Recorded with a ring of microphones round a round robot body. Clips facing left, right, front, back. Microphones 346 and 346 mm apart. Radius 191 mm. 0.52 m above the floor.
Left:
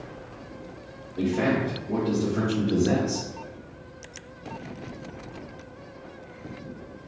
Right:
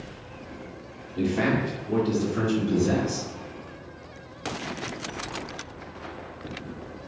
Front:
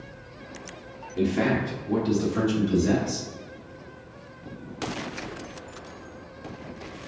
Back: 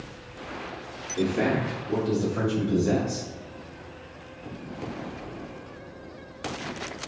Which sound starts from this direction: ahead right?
A man speaking, at 1.2 s.